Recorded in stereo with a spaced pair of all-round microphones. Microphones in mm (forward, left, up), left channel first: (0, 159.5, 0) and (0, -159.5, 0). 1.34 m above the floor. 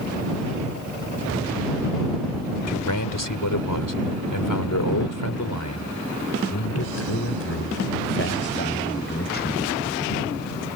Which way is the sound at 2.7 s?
75° left (ahead or behind).